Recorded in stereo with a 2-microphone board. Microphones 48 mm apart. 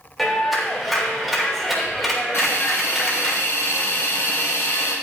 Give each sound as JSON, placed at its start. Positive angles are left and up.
{"t": 0.2, "sound": "a clap", "side_deg": 5, "distance_m": 3.5}
{"t": 2.3, "sound": "a hiss", "side_deg": 60, "distance_m": 3.0}